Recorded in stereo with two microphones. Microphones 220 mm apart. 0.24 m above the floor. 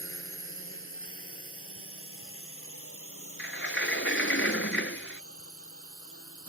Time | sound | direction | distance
0.0 | a drone | 70° left (ahead or behind) | ?
3.4 | a sliding door | 65° left (ahead or behind) | ?